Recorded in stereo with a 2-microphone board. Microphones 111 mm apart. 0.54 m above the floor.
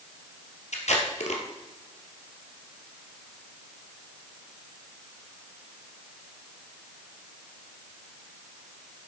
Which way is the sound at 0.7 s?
85° left.